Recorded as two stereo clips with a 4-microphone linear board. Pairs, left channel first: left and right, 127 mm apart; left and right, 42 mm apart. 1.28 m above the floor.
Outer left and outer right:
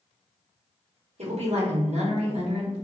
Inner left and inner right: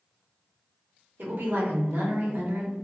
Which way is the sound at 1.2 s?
65° right (ahead or behind).